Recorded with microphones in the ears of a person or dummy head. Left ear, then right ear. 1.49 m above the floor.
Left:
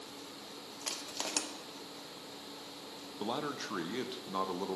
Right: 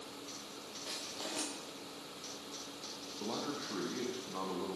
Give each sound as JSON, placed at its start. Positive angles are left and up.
{"t": 0.8, "sound": "crushing", "side_deg": 55, "distance_m": 0.6}
{"t": 3.2, "sound": "a man speaking", "side_deg": 75, "distance_m": 0.6}